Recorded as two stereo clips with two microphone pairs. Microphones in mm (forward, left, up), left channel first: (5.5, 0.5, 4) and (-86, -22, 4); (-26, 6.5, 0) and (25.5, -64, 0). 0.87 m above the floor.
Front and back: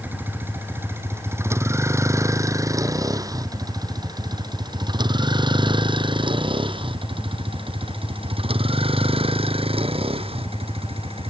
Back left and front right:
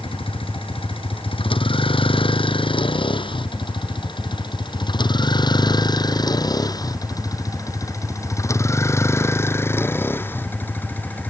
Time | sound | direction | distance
0.0 | a vehicle | 125° left | ?